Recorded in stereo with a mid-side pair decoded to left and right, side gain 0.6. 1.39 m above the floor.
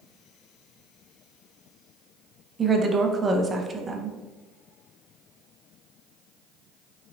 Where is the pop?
No pop in this recording.